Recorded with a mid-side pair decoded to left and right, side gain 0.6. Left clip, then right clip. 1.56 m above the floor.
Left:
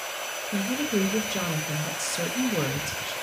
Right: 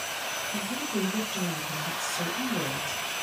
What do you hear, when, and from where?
0.5 s a woman speaking: 55° left, 1.0 m